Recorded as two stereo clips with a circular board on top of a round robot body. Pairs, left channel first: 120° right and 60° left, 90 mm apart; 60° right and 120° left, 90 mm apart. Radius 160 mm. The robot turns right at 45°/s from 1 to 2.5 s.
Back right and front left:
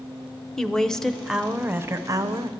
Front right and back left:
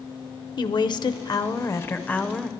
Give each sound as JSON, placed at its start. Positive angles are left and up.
{"t": 0.6, "sound": "a woman speaking", "azimuth_deg": -40, "distance_m": 0.8}